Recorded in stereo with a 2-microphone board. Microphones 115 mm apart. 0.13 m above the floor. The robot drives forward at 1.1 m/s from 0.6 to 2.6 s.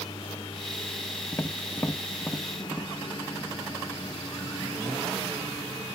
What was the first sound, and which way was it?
A lawn mower, 45° left (ahead or behind).